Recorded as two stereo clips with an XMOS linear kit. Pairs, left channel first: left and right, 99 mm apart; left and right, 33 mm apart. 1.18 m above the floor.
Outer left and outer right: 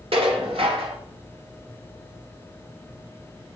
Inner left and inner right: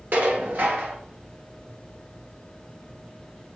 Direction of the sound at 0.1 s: 70° right (ahead or behind).